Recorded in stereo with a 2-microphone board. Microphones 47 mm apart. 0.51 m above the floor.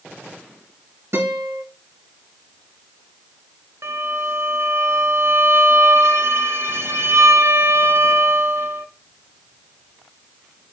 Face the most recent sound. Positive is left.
turn(degrees=-60)  # may be behind; listen again after turning